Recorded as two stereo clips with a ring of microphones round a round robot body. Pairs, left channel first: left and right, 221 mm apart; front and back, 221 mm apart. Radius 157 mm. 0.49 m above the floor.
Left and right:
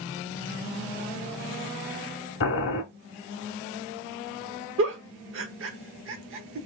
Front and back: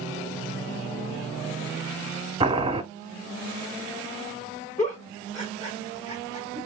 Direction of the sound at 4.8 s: 75° right.